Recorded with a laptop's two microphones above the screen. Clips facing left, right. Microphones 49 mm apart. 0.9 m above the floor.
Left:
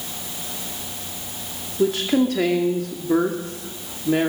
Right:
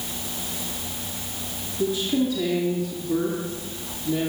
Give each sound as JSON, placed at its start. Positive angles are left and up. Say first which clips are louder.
{"t": 1.8, "sound": "a woman speaking", "louder": "left 4 dB", "side_deg": 75, "distance_m": 2.0}